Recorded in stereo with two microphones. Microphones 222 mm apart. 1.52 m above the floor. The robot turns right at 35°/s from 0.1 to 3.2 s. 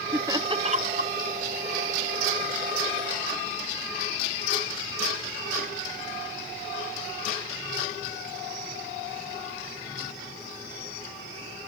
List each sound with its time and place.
0.1 s laughter: 10° right (ahead or behind); by 1.1 s 45° right (ahead or behind)